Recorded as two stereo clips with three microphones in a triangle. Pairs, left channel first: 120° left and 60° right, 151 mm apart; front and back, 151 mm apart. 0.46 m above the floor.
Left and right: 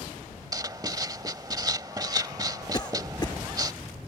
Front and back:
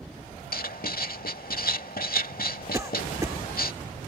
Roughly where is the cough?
Behind left.